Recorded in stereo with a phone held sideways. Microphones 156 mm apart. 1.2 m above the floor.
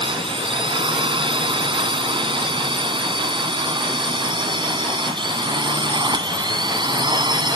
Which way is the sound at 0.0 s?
30° right (ahead or behind).